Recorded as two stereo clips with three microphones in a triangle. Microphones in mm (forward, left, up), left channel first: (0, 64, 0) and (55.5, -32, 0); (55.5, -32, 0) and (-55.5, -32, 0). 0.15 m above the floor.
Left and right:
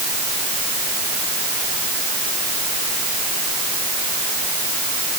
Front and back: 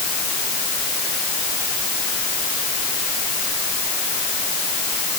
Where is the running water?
No running water in this recording.